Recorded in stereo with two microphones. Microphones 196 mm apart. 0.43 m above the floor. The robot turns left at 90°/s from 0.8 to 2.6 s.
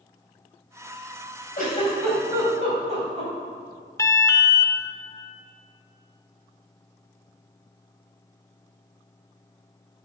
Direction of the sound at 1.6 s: 45° left (ahead or behind).